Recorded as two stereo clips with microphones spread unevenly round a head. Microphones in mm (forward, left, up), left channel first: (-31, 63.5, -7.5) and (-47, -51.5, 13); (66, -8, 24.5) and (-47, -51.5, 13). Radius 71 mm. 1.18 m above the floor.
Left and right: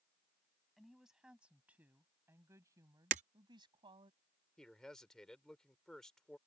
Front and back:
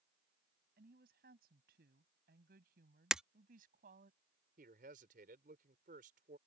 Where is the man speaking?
170° left.